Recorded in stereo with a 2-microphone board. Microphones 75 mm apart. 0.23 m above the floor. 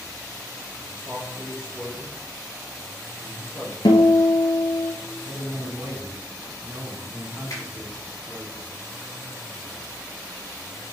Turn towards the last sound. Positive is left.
turn(degrees=45)  # may be behind; listen again after turning